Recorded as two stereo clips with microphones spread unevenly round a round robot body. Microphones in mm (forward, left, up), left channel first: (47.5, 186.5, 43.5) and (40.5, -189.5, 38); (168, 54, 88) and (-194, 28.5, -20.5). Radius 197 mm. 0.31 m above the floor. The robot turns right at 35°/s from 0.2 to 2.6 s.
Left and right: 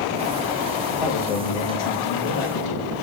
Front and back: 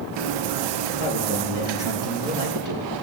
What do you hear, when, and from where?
0.9 s a man speaking: 70° left, 5.5 m; by 2.9 s 125° left, 5.5 m